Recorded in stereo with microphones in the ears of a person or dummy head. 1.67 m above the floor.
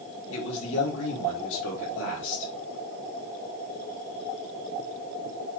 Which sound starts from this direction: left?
A man speaking, at 0.3 s.